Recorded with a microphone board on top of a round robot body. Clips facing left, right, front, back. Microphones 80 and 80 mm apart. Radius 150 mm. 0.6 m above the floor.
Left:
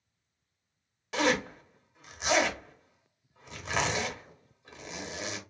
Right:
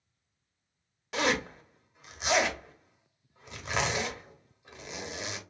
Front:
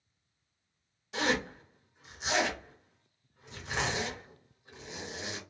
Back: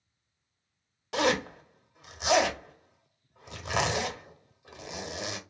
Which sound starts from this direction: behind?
A zipper, at 1.1 s.